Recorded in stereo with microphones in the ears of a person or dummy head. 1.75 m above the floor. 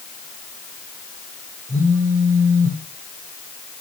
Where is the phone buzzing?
25° left (ahead or behind), 5.5 m.